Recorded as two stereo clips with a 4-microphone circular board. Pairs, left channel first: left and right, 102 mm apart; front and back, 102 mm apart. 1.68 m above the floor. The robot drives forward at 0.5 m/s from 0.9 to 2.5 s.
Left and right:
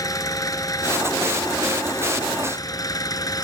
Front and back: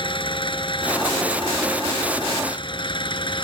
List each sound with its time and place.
0.0 s an engine running: 35° left